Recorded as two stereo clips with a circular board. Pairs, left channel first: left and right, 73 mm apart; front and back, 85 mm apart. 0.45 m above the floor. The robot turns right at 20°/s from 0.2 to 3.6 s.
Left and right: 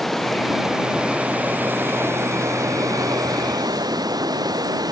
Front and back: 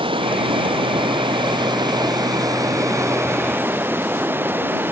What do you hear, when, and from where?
0.0 s running water: straight behind; by 4.9 s 115° right